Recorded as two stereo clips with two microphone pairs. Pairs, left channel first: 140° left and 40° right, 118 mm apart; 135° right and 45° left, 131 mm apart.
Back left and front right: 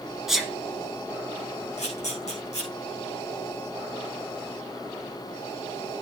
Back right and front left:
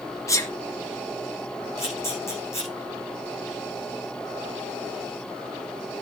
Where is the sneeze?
125° right, 1.7 m.